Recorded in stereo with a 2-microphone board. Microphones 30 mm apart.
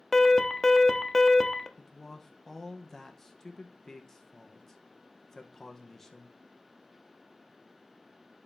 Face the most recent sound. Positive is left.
turn(degrees=15)  # may be behind; listen again after turning